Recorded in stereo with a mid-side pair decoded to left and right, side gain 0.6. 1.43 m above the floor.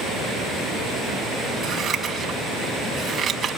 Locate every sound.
1.6 s scissors: 35° right, 6 m